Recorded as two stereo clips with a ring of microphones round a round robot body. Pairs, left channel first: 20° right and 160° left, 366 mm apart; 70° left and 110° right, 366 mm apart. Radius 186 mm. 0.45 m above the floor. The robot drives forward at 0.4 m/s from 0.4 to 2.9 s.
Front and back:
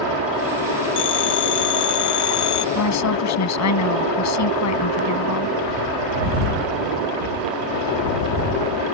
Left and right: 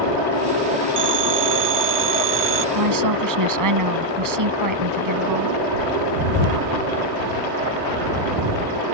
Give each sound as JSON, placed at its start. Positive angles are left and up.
{"t": 1.0, "sound": "a phone ringing", "azimuth_deg": -65}
{"t": 2.8, "sound": "a woman speaking", "azimuth_deg": -70}